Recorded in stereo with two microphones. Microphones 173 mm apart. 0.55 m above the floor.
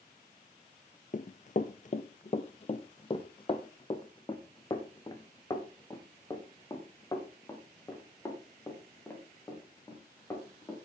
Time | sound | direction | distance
1.1 | running footsteps | 50° left (ahead or behind) | 0.7 m